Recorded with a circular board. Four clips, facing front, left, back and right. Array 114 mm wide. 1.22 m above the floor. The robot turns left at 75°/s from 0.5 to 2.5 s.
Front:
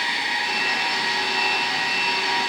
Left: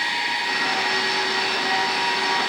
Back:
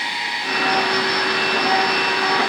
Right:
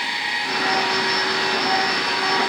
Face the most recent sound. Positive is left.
No sound to turn to.